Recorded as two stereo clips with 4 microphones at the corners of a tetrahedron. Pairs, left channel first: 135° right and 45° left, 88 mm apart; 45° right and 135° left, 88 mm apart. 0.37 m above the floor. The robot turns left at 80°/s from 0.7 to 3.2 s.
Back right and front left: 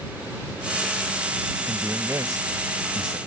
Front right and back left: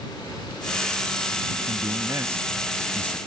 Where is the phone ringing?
I don't hear a phone ringing.